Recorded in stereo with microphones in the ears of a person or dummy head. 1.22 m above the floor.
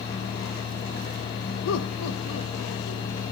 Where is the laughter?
75° left (ahead or behind), 0.9 m; by 3.0 s 70° left (ahead or behind), 2 m.